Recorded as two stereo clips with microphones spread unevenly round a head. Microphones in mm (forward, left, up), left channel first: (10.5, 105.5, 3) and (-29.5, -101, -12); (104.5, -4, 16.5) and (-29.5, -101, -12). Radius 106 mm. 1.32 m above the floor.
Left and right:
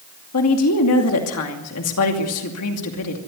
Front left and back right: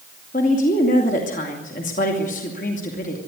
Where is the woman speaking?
95° left, 2.5 m.